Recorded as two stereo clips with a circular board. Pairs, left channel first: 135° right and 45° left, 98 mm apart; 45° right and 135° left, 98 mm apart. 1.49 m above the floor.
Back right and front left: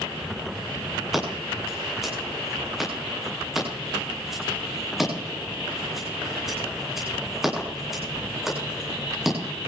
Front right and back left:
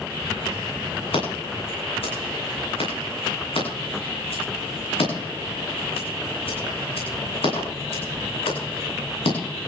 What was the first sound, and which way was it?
Scissors, 45° right.